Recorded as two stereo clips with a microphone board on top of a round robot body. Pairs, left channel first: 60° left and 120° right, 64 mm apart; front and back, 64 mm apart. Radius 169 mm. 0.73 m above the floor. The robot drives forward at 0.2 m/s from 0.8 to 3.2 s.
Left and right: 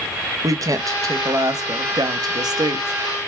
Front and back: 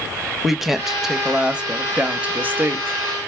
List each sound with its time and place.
0.4 s a woman speaking: 95° right, 0.9 m; by 3.3 s 125° right, 1.0 m